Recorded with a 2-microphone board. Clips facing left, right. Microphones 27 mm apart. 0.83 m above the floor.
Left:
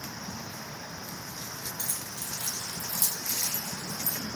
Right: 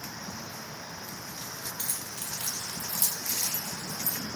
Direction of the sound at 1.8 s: 65° right (ahead or behind).